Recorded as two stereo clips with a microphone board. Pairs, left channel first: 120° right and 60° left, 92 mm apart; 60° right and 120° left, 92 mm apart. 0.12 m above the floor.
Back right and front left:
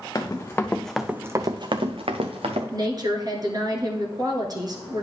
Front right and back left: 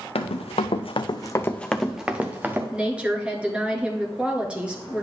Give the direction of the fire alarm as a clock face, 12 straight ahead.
I don't hear a fire alarm.